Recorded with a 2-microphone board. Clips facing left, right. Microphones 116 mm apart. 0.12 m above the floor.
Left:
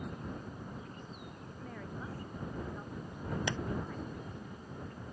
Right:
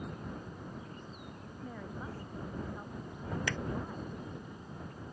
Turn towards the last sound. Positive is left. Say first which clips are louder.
# left 1 dB
turn(degrees=20)  # may be behind; listen again after turning